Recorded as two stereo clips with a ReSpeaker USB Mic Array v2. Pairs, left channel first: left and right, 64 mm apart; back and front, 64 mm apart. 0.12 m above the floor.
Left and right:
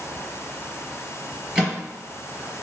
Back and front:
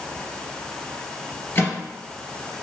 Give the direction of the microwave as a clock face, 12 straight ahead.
5 o'clock.